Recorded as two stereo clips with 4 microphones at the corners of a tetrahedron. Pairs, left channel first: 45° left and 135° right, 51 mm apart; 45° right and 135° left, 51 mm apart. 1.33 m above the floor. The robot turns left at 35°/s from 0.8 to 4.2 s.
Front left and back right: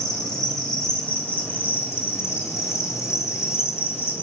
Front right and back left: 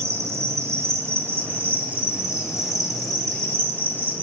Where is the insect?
115° left, 4.5 m; by 4.2 s 5° right, 4.5 m.